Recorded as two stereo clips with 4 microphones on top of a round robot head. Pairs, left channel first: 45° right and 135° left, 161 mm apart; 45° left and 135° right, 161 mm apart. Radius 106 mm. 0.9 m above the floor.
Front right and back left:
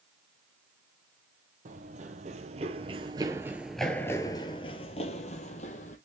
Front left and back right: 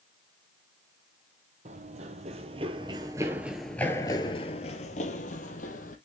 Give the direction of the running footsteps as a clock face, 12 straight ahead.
6 o'clock.